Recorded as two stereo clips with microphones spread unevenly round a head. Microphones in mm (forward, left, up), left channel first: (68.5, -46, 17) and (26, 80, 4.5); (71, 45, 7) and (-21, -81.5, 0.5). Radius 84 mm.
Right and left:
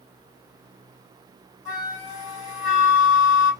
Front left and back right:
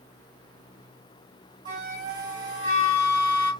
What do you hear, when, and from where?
1.6 s a flute: 165° left, 2.5 m